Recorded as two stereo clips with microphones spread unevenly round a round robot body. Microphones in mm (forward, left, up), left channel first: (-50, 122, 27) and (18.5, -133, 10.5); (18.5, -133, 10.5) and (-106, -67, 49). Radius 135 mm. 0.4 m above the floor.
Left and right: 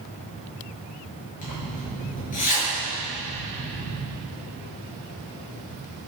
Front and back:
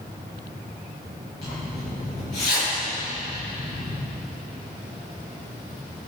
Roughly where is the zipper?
Ahead left.